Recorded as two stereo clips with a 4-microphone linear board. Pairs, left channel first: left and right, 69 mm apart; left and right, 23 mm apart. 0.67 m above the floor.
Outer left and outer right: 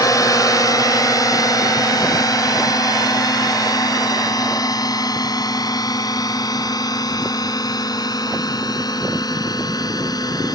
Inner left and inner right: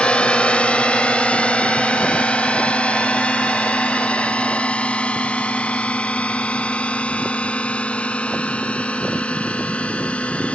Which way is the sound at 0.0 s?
60° left (ahead or behind).